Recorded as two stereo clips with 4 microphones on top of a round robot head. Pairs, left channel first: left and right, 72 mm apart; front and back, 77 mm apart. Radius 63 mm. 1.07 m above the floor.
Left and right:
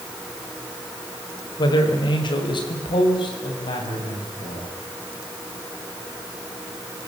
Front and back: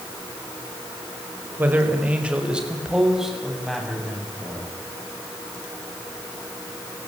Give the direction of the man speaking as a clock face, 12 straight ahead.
8 o'clock.